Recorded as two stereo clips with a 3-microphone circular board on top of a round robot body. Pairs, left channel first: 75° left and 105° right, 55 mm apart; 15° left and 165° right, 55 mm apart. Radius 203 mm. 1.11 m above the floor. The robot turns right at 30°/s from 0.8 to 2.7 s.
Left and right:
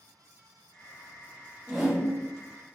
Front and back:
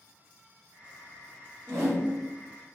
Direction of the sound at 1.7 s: 170° left.